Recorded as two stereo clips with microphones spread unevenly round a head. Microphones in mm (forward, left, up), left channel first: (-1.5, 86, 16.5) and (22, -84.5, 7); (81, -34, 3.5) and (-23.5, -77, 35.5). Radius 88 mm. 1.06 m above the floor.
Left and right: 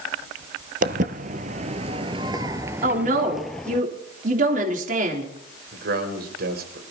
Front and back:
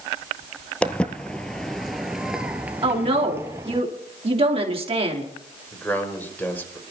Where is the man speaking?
50° right, 5.5 m.